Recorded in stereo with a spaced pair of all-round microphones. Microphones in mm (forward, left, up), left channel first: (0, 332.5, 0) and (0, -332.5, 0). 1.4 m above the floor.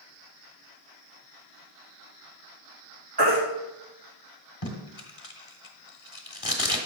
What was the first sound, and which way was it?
A baby crying, 40° right (ahead or behind).